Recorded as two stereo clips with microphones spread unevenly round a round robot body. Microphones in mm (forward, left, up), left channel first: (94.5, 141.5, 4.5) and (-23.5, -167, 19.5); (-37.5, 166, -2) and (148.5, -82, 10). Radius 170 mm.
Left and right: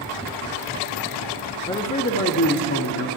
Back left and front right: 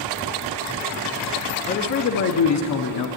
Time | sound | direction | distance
1.7 | a man speaking | 120° left | 0.6 m